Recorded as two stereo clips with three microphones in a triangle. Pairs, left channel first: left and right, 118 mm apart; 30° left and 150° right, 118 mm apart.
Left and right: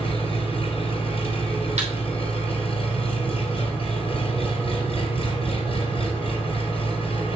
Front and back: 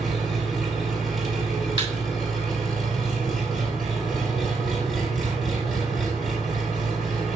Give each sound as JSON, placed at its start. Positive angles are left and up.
{"t": 0.0, "sound": "an engine running", "azimuth_deg": 120, "distance_m": 3.0}
{"t": 1.8, "sound": "a thud", "azimuth_deg": -110, "distance_m": 3.0}